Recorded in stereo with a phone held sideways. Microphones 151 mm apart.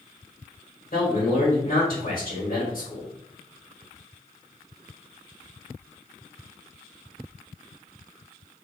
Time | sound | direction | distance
0.9 | a man speaking | 65° left (ahead or behind) | 1.2 m